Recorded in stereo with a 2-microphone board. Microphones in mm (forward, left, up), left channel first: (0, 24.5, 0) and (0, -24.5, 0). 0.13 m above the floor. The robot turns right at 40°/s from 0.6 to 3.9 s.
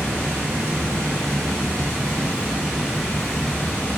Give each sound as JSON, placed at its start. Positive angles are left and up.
{"t": 0.0, "sound": "running water", "azimuth_deg": -105, "distance_m": 1.8}